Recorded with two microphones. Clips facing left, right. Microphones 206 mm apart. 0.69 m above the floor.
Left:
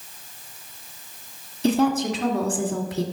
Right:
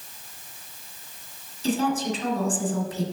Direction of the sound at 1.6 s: 65° left (ahead or behind).